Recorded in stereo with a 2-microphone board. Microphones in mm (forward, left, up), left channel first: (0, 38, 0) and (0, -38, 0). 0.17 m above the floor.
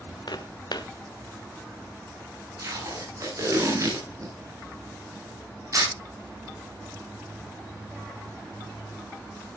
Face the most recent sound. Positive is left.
turn(degrees=-45)  # may be behind; listen again after turning